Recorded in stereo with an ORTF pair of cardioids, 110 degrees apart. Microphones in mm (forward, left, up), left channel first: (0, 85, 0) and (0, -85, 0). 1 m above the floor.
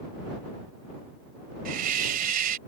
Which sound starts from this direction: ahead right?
A hiss, at 1.6 s.